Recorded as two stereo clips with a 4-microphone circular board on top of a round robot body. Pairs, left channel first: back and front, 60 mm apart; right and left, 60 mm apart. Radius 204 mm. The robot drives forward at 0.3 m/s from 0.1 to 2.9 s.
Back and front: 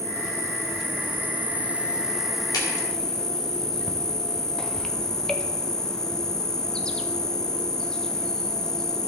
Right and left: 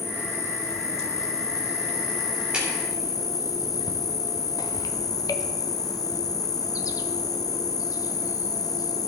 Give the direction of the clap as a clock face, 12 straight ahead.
6 o'clock.